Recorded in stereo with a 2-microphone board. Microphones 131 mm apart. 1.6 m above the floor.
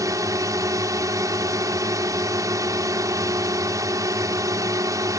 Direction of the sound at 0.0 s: 25° right (ahead or behind).